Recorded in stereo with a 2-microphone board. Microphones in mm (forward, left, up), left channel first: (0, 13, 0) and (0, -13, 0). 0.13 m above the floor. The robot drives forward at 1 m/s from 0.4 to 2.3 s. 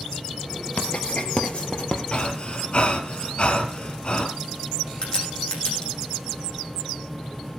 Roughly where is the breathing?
Left.